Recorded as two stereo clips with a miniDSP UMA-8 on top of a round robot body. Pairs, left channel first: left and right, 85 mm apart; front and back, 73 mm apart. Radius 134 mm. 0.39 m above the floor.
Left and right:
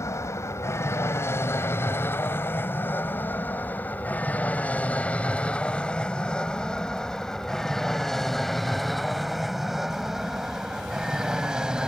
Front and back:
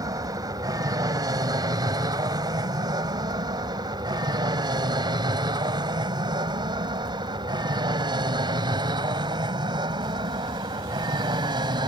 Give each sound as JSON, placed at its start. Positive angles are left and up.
{"t": 0.0, "sound": "an aircraft", "azimuth_deg": 145}